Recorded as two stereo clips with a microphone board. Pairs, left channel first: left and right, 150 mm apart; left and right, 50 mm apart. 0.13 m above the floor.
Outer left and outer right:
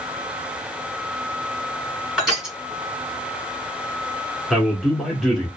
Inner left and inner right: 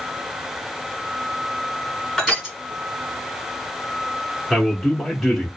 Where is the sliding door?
I don't hear a sliding door.